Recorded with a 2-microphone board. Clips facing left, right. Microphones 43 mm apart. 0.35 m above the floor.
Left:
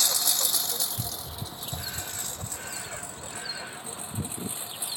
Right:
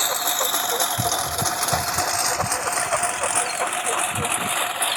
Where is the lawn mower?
35° right (ahead or behind); by 5.0 s 60° right (ahead or behind).